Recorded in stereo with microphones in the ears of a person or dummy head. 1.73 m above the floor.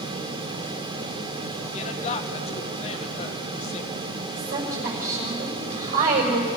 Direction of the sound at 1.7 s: 35° left (ahead or behind).